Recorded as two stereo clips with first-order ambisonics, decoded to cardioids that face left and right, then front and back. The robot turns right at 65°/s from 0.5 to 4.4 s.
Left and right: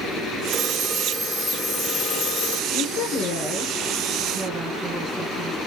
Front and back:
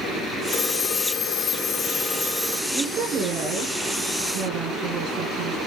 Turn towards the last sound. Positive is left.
turn(degrees=-150)